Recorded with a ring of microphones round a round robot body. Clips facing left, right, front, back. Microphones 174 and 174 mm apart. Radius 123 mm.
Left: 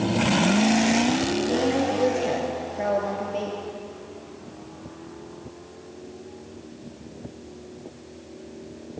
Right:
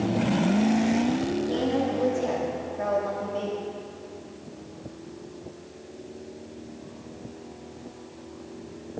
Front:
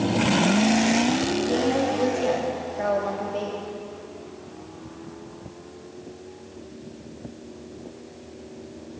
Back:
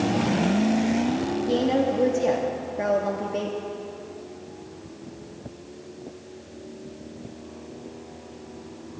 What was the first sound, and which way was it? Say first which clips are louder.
A woman speaking: left 3 dB, back 3 dB; 140° left.